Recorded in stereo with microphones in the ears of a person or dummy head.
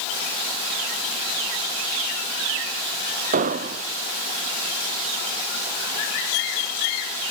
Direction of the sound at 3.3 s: 45° right (ahead or behind).